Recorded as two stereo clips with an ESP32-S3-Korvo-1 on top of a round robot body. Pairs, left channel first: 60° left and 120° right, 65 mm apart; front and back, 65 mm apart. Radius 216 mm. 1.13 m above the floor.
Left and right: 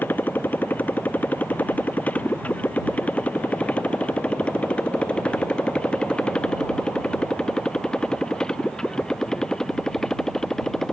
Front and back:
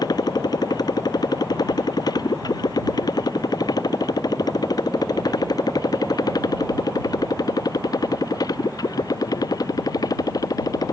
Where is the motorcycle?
5° right; by 10.9 s 25° right.